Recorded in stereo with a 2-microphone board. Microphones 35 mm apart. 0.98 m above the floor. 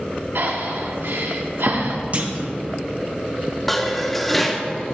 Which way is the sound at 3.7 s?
5° left (ahead or behind).